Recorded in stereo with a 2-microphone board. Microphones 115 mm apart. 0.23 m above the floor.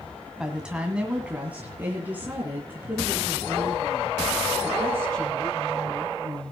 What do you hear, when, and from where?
0.4 s a woman speaking: 5° right (ahead or behind), 1.9 m; by 6.5 s 20° right (ahead or behind), 5.5 m